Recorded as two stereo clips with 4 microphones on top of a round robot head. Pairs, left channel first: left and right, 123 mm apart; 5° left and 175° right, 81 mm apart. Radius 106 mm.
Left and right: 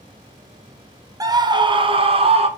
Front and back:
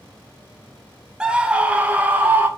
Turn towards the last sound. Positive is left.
turn(degrees=-105)